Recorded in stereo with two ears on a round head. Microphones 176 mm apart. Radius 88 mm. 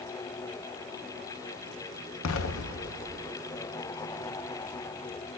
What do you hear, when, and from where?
2.2 s an explosion: 80° left, 0.7 m